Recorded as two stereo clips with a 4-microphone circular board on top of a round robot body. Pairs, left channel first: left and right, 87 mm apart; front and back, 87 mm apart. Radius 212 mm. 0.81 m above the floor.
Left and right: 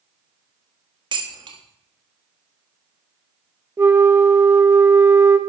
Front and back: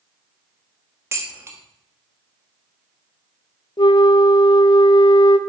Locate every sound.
1.1 s dishes clattering: 120° right, 1.5 m
3.8 s a flute: 30° right, 0.7 m